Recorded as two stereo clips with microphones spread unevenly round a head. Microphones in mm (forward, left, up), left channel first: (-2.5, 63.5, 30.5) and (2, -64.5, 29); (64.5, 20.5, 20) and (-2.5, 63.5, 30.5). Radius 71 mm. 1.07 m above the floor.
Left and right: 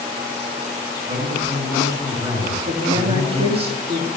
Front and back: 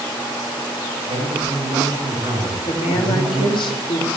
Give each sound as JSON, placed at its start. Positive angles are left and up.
{"t": 1.1, "sound": "a man speaking", "azimuth_deg": -155, "distance_m": 6.0}
{"t": 2.7, "sound": "a woman speaking", "azimuth_deg": -45, "distance_m": 2.5}